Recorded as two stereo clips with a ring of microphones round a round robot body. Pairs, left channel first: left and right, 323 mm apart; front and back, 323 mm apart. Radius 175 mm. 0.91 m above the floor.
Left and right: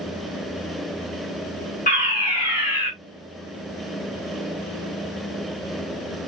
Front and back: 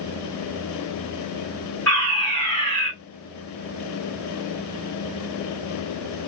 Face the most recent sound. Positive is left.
turn(degrees=80)